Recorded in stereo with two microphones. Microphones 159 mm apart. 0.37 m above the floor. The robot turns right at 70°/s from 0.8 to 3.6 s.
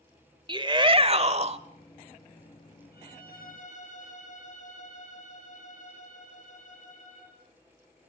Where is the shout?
130° right, 1.1 m; by 1.6 s 75° right, 1.1 m.